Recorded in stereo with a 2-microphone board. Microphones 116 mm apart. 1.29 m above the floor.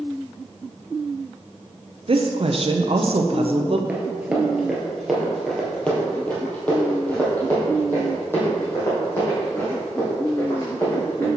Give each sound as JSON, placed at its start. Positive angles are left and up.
{"t": 2.1, "sound": "a woman speaking", "side_deg": -55, "distance_m": 0.7}
{"t": 3.9, "sound": "running footsteps", "side_deg": -15, "distance_m": 1.6}